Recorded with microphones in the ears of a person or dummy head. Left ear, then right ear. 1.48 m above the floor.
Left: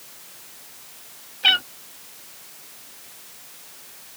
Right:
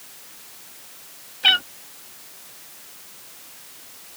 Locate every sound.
1.4 s a cat meowing: 5° right (ahead or behind)